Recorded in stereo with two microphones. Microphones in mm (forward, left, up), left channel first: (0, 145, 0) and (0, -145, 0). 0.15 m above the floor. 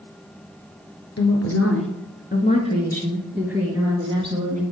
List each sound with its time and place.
1.2 s a woman speaking: 60° left (ahead or behind), 2 m; by 4.6 s 25° right (ahead or behind), 3 m